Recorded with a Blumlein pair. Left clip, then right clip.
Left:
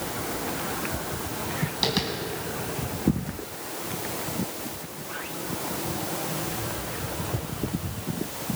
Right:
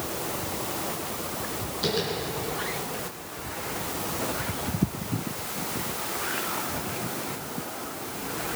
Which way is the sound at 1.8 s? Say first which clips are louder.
Left 1 dB; 55° left.